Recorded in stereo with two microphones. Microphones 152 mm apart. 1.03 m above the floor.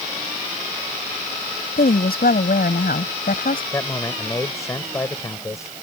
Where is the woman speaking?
85° left; by 3.6 s 75° left (ahead or behind).